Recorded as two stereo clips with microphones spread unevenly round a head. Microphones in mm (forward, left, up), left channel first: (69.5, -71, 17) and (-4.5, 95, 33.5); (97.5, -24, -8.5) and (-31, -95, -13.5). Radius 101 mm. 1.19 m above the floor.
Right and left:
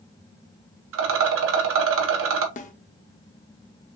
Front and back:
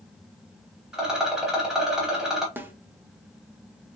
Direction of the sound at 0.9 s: 120° left.